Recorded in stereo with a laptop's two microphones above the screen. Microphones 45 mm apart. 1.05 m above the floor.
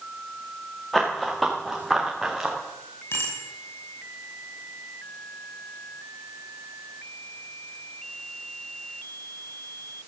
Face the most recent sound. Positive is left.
turn(degrees=60)  # may be behind; listen again after turning